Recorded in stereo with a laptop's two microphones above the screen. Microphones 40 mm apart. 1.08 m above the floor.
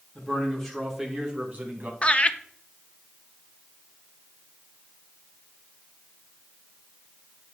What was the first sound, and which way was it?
A man speaking, 20° left (ahead or behind).